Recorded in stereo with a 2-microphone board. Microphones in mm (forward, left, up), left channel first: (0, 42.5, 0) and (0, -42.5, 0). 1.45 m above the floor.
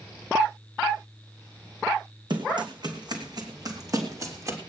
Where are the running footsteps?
65° right (ahead or behind), 3.5 m; by 4.6 s 35° right (ahead or behind), 2.5 m.